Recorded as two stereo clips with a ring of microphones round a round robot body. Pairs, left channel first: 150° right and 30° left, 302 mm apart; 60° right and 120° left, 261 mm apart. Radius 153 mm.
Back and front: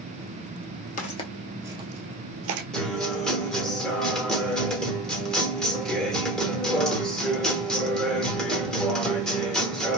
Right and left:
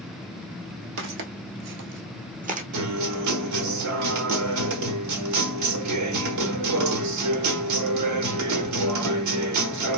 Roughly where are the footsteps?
Behind left.